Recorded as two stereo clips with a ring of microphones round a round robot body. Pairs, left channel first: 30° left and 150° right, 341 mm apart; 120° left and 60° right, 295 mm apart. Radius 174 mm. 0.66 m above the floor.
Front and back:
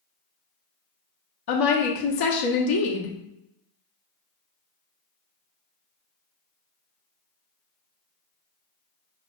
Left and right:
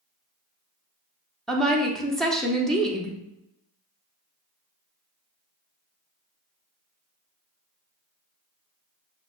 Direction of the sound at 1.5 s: 30° left.